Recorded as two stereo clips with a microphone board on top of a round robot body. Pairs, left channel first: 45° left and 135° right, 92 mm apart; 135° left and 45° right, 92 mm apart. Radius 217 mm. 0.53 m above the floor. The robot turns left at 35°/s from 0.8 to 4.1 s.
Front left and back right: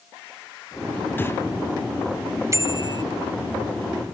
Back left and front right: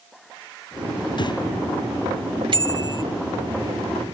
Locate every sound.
1.2 s breathing: 110° left; by 1.4 s 100° left
2.5 s a bicycle bell: 75° right; by 3.0 s 95° right